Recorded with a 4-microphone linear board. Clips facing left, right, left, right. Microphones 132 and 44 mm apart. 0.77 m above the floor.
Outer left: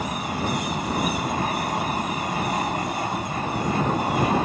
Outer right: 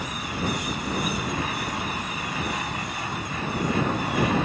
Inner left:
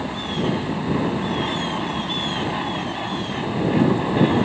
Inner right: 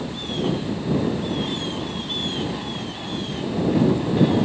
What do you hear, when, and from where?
0.0 s an aircraft: 45° left (ahead or behind); by 4.4 s 40° left (ahead or behind)